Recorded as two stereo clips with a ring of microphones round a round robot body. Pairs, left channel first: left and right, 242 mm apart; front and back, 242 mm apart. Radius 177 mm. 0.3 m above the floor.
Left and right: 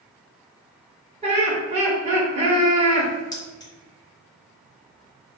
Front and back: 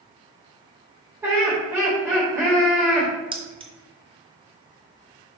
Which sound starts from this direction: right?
Laughter, at 1.2 s.